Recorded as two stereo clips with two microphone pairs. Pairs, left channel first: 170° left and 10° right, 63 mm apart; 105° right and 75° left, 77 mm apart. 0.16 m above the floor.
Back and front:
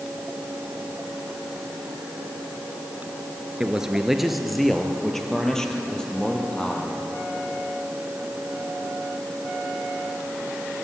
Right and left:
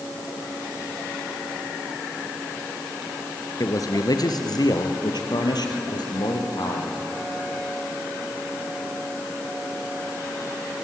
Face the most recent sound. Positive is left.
turn(degrees=-115)